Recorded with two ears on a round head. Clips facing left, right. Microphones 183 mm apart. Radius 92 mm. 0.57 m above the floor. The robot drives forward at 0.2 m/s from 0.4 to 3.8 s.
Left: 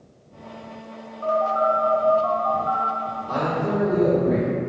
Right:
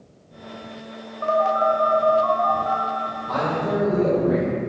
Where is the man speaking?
Centre (ahead or behind), 1.1 m.